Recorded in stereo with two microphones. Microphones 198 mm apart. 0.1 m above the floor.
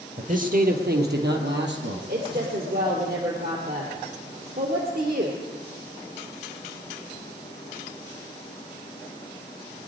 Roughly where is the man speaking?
Right.